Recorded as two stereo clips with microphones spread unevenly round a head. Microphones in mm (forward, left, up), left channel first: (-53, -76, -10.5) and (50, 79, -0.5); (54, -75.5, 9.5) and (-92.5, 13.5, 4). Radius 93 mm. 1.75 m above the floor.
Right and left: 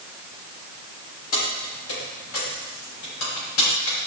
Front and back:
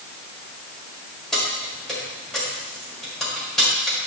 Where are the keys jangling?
120° right, 5 m.